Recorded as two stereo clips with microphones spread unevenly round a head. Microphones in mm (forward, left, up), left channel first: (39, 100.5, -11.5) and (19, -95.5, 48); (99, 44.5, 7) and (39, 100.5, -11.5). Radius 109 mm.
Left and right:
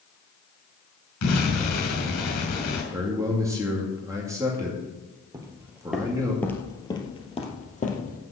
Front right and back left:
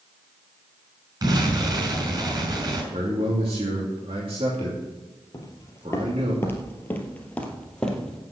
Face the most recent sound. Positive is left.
turn(degrees=30)